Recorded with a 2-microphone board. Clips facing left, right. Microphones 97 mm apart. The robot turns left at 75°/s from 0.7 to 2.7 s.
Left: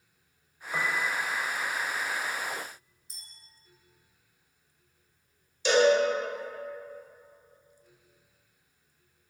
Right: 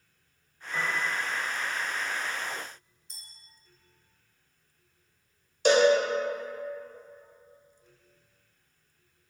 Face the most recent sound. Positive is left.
turn(degrees=-50)  # may be behind; listen again after turning